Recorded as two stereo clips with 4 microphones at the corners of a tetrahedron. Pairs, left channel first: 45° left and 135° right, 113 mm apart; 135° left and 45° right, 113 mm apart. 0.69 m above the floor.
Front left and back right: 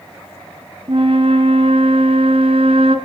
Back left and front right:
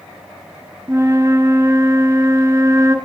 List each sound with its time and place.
0.9 s a flute: 110° right, 1.6 m